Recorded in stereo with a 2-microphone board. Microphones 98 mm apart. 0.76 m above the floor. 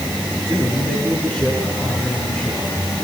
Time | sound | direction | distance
0.5 | a man speaking | 20° left (ahead or behind) | 9 m